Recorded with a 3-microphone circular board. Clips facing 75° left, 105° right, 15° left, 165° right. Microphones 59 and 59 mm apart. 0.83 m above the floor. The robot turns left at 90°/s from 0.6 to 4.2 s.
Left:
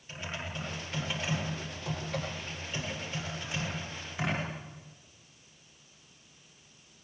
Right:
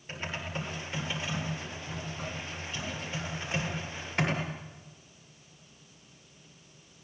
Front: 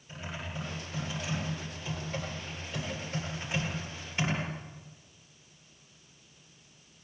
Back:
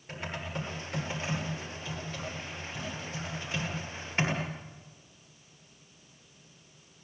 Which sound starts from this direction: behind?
Typing on a keyboard, at 0.1 s.